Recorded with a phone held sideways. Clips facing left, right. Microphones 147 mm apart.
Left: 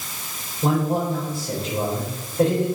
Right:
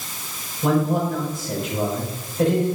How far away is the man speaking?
About 5 m.